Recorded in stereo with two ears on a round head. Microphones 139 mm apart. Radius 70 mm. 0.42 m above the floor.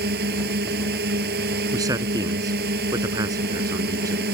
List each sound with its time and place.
0.0 s a drone: 65° right (ahead or behind)
1.7 s a man speaking: 25° right (ahead or behind)